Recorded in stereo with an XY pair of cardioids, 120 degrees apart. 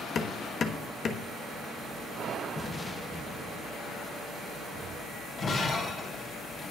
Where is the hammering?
40° left, 1.2 m.